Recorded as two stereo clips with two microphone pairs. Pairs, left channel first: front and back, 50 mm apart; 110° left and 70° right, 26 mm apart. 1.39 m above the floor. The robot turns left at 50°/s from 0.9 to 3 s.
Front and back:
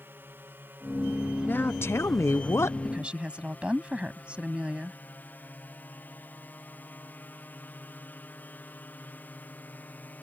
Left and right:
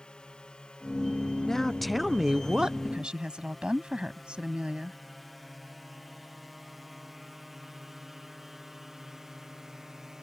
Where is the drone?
150° left; by 10.2 s 5° right.